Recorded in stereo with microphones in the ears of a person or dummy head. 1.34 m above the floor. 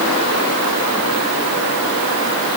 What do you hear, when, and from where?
Only background noise.